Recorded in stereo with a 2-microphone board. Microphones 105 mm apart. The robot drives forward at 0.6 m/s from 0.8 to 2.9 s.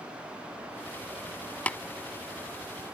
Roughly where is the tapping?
Centre.